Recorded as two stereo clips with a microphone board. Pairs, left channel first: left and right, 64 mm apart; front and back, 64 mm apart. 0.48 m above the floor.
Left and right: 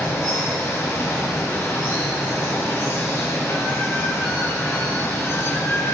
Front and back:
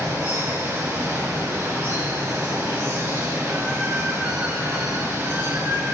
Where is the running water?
135° left, 1.3 m.